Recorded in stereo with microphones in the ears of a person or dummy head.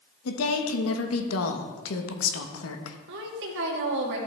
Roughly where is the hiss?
No hiss in this recording.